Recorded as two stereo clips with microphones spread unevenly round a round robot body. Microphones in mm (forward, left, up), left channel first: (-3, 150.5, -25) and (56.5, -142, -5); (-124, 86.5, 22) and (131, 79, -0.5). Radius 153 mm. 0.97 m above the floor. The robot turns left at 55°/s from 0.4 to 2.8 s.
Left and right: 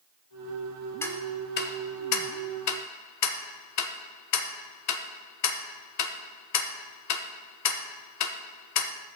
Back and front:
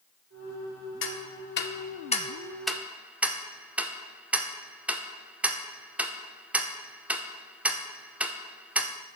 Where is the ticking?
175° right, 0.7 m; by 8.9 s 85° left, 0.7 m.